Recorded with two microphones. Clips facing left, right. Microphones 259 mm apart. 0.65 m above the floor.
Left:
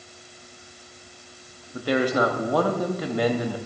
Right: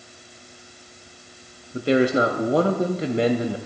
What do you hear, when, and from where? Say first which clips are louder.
1.7 s a man speaking: right 4 dB; 25° right (ahead or behind), 0.6 m